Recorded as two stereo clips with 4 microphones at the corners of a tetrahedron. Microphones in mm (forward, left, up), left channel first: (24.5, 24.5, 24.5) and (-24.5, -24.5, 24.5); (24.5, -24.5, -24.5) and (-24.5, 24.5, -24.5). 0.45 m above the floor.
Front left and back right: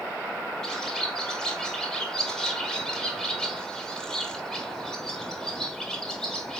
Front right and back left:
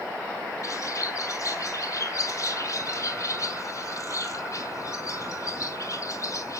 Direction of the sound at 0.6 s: 35° right.